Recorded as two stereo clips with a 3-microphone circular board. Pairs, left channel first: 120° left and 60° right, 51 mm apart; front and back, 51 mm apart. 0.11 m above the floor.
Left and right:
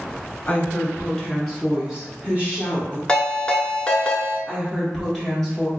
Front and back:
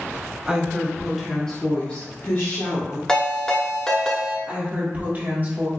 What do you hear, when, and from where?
0.5 s a woman speaking: 135° left, 1.3 m; by 3.0 s 15° right, 1.8 m
3.1 s a ringtone: 65° left, 0.7 m
4.5 s a woman speaking: 165° right, 1.5 m